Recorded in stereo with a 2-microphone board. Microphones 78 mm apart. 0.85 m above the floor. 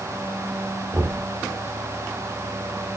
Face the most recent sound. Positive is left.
turn(degrees=-25)  # may be behind; listen again after turning